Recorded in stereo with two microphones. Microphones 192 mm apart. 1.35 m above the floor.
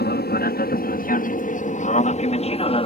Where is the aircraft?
60° left (ahead or behind); by 2.9 s 30° left (ahead or behind).